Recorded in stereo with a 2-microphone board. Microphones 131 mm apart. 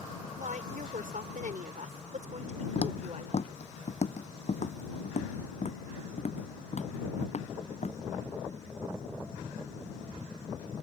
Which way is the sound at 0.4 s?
80° right.